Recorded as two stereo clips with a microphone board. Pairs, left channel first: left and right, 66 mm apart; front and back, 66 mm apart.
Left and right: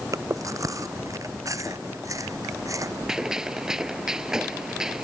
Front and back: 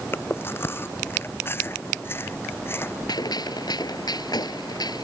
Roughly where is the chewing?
Ahead right.